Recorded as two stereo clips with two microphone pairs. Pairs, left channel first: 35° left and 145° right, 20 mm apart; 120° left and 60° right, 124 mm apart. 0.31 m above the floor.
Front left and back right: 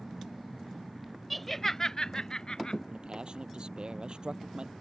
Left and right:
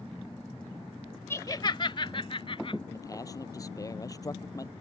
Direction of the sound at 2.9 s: Straight behind.